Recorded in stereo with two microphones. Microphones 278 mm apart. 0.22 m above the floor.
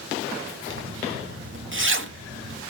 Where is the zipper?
45° right (ahead or behind), 0.7 m.